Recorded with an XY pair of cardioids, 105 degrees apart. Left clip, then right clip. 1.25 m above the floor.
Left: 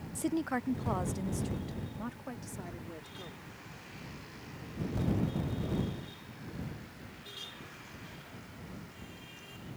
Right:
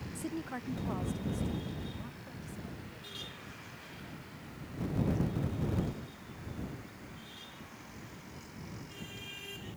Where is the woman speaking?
40° left; by 3.4 s 65° left.